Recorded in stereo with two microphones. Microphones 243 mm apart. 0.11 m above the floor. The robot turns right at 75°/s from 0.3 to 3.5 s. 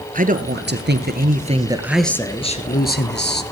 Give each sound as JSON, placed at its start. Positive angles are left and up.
{"t": 0.1, "sound": "a man speaking", "azimuth_deg": -130, "distance_m": 1.8}